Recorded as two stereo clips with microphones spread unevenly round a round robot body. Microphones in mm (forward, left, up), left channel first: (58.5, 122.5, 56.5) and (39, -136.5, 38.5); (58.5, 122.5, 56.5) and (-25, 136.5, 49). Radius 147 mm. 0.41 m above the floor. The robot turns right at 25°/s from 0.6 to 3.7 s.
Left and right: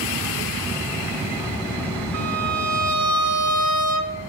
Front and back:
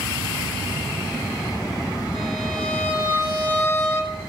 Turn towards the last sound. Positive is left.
turn(degrees=-65)